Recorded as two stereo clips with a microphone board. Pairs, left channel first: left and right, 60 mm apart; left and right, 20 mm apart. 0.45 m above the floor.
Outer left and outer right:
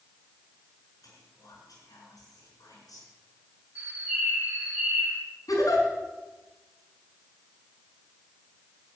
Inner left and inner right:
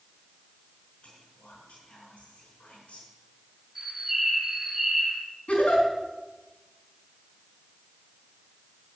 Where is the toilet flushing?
I don't hear a toilet flushing.